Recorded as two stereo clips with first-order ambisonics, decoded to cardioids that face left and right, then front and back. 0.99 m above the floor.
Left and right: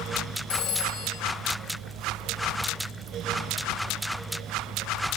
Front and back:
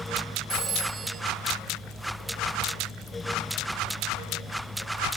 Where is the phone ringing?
105° left, 1.2 m.